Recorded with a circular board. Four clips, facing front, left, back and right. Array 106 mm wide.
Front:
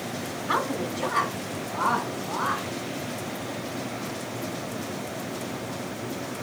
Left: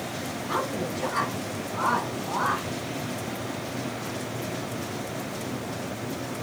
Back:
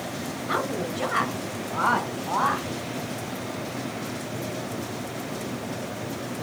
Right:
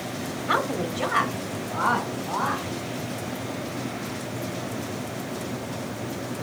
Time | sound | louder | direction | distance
0.5 | a woman speaking | right 4 dB, front 1 dB | 90° right | 1.4 m